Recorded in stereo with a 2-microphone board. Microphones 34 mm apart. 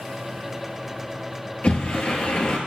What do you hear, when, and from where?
1.6 s a sliding door: 40° left (ahead or behind), 1.3 m